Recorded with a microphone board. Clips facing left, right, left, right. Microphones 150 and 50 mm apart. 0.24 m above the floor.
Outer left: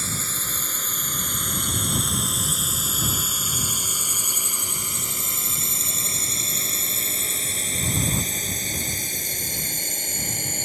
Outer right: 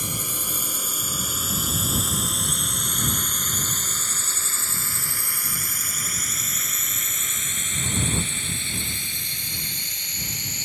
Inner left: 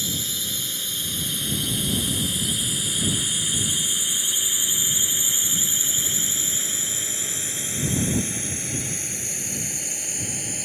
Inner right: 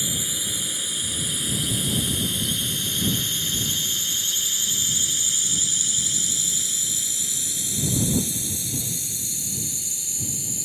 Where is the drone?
15° right (ahead or behind); by 10.7 s 50° left (ahead or behind).